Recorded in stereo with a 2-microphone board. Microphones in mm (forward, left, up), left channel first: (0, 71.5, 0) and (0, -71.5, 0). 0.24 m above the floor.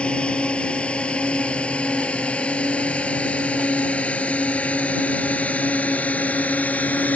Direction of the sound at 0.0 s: 5° left (ahead or behind).